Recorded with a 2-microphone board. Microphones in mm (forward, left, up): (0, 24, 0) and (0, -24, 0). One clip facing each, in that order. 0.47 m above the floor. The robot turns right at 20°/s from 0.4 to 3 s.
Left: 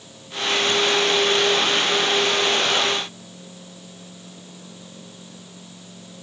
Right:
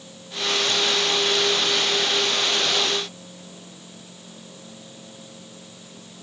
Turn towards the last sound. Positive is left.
No sound to turn to.